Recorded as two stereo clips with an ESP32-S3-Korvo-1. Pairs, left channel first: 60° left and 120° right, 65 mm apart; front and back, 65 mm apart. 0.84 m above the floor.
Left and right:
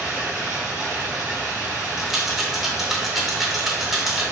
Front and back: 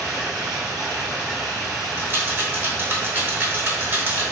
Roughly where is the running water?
Behind.